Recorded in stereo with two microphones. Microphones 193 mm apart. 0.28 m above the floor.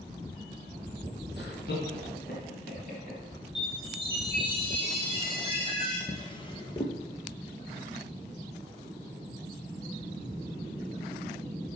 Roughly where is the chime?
Left.